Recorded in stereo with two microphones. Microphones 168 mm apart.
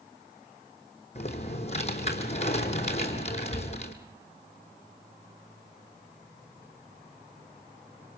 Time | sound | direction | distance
1.1 | typing on a keyboard | 40° left (ahead or behind) | 3 m